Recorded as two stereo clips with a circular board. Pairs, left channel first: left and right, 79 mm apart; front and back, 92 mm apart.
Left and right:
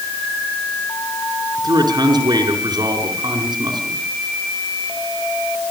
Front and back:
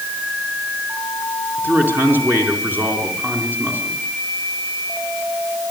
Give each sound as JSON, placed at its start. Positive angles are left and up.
{"t": 1.6, "sound": "a man speaking", "azimuth_deg": -110, "distance_m": 4.0}